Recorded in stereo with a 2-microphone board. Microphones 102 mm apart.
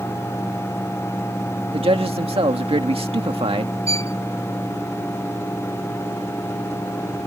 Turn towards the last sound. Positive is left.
turn(degrees=-70)  # may be behind; listen again after turning